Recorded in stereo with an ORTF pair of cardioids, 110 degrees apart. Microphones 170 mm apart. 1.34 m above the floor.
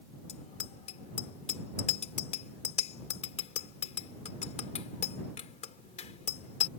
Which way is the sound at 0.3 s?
40° left.